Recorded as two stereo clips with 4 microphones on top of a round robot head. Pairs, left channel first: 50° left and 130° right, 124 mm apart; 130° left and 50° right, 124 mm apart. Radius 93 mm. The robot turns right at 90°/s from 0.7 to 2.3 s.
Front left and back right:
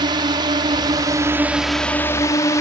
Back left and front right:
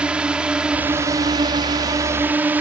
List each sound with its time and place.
0.0 s a drone: 125° right; by 2.6 s 15° left